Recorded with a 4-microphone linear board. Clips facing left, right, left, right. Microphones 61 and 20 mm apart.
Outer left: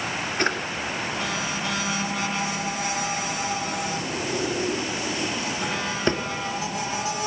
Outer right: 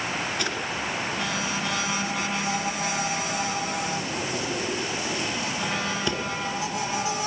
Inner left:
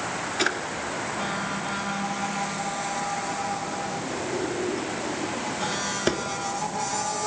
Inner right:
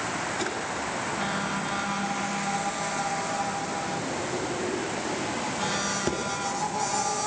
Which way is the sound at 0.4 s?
40° left (ahead or behind).